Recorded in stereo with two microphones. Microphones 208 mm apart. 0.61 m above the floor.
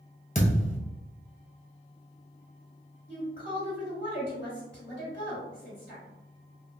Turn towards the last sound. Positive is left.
turn(degrees=60)  # may be behind; listen again after turning